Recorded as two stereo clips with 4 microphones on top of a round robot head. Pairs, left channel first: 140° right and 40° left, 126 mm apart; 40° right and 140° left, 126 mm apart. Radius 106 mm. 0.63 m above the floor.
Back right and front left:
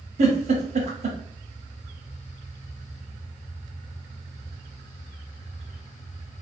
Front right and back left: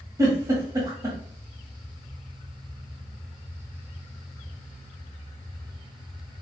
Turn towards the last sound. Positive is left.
turn(degrees=70)